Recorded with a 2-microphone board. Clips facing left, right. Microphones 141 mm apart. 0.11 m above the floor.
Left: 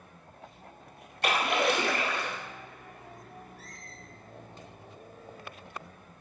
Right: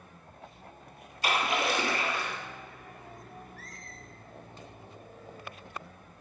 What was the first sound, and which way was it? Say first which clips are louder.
A splash: left 2 dB; 60° left (ahead or behind).